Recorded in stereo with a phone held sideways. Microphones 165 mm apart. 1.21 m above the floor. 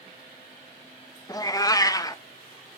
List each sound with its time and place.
1.3 s a cat meowing: 20° left (ahead or behind), 0.5 m